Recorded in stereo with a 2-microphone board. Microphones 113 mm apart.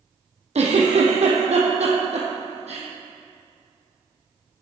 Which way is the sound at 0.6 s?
75° right (ahead or behind).